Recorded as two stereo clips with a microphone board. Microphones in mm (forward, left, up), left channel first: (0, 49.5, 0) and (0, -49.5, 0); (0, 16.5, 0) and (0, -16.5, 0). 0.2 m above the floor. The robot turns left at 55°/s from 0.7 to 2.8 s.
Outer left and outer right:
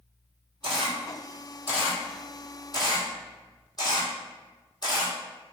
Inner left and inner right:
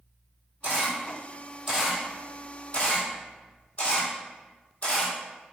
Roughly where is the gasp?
I don't hear a gasp.